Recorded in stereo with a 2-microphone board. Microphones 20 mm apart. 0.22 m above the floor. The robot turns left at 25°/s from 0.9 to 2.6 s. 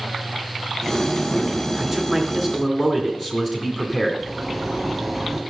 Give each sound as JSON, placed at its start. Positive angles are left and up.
{"t": 1.8, "sound": "a man speaking", "side_deg": 10, "distance_m": 2.5}
{"t": 4.2, "sound": "a zipper", "side_deg": -10, "distance_m": 1.3}